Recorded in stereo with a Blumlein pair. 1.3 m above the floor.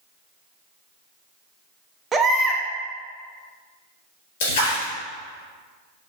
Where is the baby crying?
20° right, 0.6 m.